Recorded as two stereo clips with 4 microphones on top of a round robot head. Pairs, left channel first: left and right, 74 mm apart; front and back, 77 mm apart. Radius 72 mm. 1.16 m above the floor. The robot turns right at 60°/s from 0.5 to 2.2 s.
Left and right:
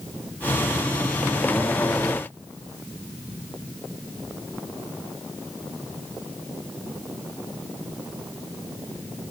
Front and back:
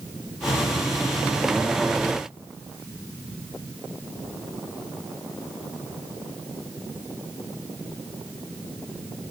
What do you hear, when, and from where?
Only background noise.